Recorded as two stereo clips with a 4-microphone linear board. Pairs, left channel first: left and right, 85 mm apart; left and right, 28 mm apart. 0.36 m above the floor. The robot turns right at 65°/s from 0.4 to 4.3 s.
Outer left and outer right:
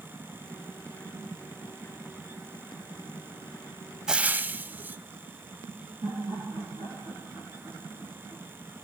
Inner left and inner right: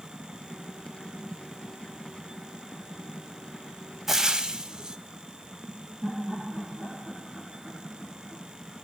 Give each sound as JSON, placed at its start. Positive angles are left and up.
{"t": 4.1, "sound": "frying", "side_deg": -5, "distance_m": 0.8}
{"t": 6.0, "sound": "laughter", "side_deg": -70, "distance_m": 6.5}